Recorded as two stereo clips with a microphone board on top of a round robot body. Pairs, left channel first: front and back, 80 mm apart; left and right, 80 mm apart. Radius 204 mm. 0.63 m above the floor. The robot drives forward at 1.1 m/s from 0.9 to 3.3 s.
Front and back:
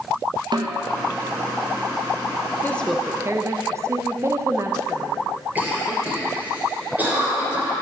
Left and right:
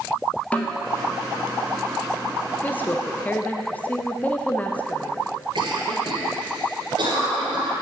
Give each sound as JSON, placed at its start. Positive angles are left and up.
{"t": 0.5, "sound": "a snare drum", "azimuth_deg": 165, "distance_m": 1.2}
{"t": 2.6, "sound": "a woman speaking", "azimuth_deg": 40, "distance_m": 0.9}
{"t": 5.5, "sound": "a cough", "azimuth_deg": -110, "distance_m": 3.0}